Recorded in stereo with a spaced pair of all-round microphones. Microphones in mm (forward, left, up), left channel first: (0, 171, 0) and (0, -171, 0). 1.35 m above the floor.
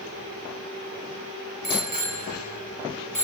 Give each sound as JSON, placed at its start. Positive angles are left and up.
{"t": 1.6, "sound": "a bicycle bell", "side_deg": -85, "distance_m": 3.5}